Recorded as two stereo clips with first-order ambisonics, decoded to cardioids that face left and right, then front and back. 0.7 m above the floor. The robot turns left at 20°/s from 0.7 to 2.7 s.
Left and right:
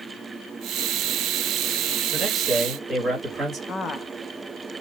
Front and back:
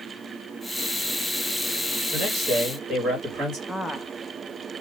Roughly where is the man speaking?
Behind right.